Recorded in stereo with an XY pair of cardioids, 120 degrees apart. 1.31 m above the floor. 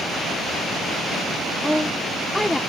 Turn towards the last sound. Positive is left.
turn(degrees=0)